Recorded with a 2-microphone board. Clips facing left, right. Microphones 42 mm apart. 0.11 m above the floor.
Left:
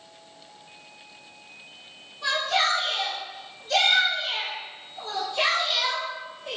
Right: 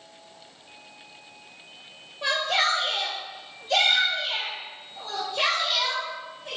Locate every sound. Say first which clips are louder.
2.2 s a shout: even; 40° right (ahead or behind), 1.7 m; by 6.6 s 25° left (ahead or behind), 2.5 m